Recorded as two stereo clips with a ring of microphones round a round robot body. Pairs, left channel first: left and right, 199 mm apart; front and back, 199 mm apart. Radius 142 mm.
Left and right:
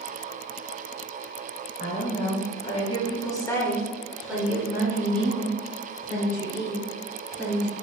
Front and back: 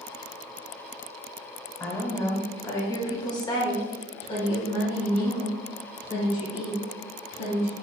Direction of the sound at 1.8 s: 70° left.